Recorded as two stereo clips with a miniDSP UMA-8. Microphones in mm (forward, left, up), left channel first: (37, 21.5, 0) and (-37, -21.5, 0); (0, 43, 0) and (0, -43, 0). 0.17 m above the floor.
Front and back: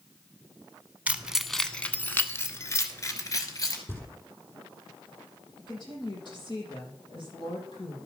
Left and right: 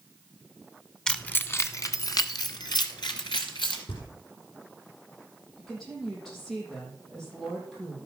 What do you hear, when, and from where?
1.1 s keys jangling: 160° left, 0.8 m; by 3.8 s 75° left, 2 m
3.9 s knocking: 90° left, 3.5 m
5.6 s a woman speaking: 5° left, 6 m